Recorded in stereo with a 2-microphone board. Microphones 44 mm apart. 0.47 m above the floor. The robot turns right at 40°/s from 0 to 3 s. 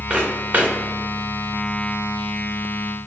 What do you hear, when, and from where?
0.1 s footsteps: 20° right (ahead or behind), 1.9 m; by 0.7 s 45° right (ahead or behind), 1.9 m